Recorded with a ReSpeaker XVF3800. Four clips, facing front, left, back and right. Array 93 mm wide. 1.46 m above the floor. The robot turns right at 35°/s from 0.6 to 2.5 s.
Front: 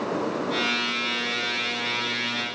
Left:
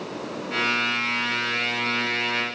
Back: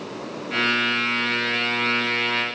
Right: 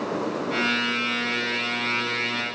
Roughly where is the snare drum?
I don't hear a snare drum.